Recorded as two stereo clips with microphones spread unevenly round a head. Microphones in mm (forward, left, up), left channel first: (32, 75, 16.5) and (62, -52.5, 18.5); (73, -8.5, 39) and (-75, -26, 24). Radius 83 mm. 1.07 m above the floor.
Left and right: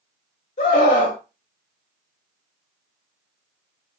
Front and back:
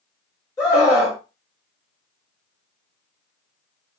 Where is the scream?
80° left, 1.0 m.